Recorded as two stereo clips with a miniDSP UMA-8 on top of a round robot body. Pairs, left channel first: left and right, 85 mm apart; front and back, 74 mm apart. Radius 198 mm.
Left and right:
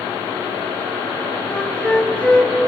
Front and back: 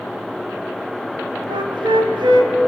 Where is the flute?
170° left, 1.3 m.